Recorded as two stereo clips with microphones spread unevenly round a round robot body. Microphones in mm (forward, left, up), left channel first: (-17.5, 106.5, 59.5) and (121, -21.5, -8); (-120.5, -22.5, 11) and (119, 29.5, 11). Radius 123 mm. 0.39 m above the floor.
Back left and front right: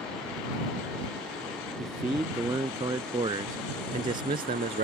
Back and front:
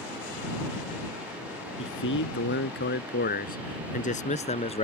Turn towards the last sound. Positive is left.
turn(degrees=-100)